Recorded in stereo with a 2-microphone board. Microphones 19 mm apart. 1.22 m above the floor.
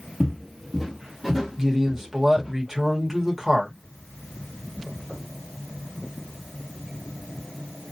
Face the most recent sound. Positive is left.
turn(degrees=-15)  # may be behind; listen again after turning